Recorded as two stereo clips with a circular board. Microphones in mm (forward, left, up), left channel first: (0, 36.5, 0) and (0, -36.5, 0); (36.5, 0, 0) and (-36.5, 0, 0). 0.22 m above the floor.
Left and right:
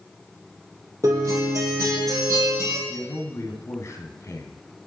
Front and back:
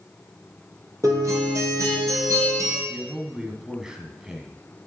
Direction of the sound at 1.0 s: 135° right.